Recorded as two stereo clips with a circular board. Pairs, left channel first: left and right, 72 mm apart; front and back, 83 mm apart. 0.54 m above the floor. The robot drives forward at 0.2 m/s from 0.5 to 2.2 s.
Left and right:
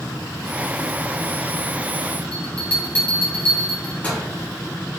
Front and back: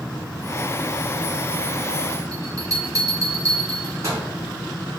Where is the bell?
150° left, 1.5 m.